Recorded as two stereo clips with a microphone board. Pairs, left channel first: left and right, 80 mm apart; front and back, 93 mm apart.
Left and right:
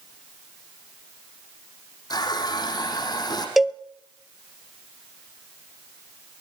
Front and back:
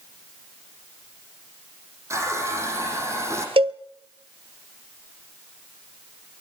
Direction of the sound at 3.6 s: Straight behind.